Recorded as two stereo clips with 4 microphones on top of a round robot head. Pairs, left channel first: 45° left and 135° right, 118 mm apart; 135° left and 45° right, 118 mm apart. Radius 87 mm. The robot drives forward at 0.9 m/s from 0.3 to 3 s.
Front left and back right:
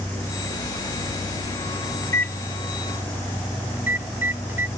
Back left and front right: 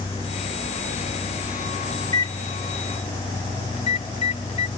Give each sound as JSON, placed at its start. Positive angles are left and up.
{"t": 2.0, "sound": "a microwave", "azimuth_deg": 85}